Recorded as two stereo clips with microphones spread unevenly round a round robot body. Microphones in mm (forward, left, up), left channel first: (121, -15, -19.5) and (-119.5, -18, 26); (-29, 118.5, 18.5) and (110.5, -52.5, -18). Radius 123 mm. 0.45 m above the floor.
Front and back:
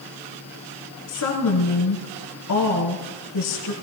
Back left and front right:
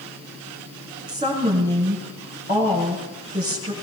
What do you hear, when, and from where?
1.1 s a woman speaking: 15° left, 2 m